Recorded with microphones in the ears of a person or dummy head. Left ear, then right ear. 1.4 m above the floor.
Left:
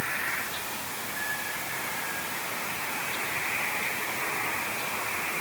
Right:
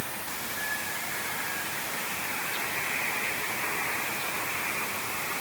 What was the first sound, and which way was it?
Only background noise.